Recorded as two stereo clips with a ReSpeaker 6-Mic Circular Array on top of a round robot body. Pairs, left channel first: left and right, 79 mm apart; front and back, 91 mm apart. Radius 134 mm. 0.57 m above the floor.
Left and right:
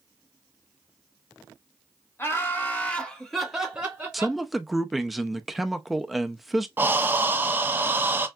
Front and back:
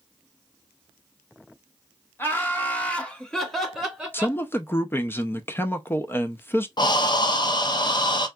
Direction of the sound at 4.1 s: 5° right.